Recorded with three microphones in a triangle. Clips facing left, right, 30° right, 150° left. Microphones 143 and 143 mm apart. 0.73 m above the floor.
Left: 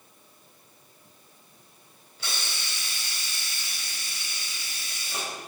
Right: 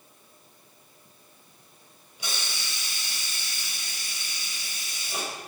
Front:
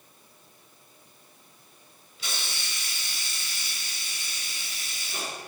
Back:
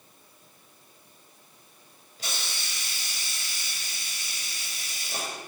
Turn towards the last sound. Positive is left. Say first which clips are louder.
# even, even
turn(degrees=-165)